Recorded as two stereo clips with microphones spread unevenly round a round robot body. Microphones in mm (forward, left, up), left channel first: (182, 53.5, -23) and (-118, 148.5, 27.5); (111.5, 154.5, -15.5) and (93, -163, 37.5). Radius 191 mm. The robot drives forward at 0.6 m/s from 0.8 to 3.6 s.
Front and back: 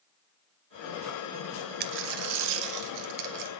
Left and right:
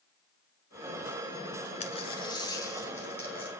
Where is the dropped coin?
160° left, 0.5 m; by 3.5 s 175° left, 1.4 m.